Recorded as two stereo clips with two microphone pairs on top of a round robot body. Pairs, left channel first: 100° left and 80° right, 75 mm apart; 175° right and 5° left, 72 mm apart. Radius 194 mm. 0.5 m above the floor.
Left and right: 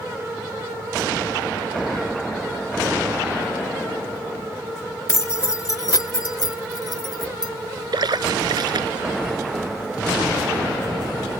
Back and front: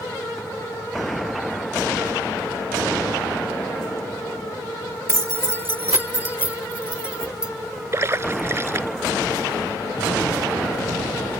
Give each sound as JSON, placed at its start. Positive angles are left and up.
{"t": 5.1, "sound": "keys jangling", "azimuth_deg": 55}
{"t": 7.9, "sound": "a splash", "azimuth_deg": -50}